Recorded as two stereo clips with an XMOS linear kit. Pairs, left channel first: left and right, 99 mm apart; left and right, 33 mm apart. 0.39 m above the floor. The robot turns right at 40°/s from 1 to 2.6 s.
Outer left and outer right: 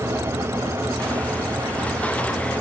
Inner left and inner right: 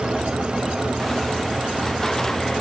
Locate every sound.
Only background noise.